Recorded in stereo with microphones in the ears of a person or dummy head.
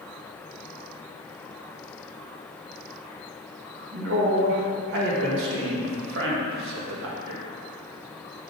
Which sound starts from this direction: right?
A man speaking, at 3.9 s.